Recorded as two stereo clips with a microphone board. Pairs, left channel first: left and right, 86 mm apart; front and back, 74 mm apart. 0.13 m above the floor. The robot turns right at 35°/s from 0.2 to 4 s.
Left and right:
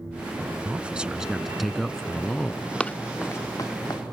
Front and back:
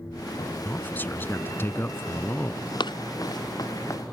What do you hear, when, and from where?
0.7 s a man speaking: 35° right; by 2.6 s 30° left
2.8 s running footsteps: 10° left; by 4.0 s 50° left